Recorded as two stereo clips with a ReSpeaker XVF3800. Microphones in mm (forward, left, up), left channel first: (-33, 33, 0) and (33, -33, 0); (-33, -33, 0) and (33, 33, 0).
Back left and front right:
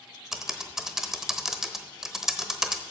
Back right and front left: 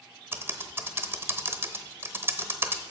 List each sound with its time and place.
0.3 s typing on a keyboard: 35° left, 0.8 m